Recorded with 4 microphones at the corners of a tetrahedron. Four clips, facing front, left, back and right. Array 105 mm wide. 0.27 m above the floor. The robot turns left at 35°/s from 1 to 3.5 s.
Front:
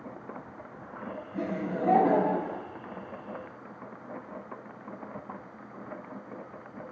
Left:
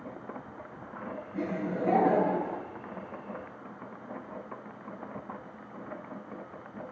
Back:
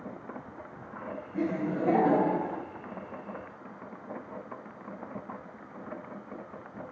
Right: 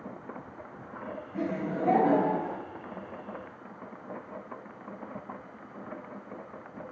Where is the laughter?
60° right, 1.6 m; by 2.6 s 105° right, 1.6 m.